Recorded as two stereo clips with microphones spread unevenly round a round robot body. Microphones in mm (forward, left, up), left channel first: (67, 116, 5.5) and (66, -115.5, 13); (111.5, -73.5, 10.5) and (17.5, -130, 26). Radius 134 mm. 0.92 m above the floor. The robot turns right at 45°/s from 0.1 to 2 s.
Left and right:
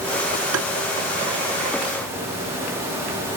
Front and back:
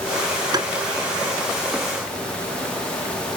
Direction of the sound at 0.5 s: 110° right.